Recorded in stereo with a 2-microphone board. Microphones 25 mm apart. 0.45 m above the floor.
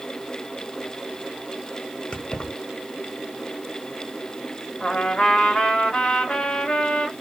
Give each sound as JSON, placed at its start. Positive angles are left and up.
{"t": 2.1, "sound": "keys jangling", "side_deg": 40, "distance_m": 1.0}
{"t": 4.8, "sound": "a trumpet", "side_deg": 45, "distance_m": 0.9}